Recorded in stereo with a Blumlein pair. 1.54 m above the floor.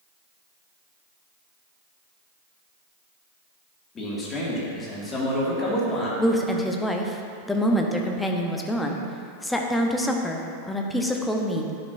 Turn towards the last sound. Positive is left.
turn(degrees=5)